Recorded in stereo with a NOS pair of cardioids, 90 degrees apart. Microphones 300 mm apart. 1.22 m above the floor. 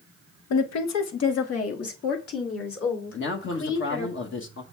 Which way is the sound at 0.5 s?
65° left.